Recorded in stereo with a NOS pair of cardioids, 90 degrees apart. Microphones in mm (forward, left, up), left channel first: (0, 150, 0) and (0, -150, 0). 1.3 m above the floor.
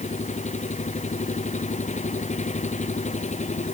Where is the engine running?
25° left.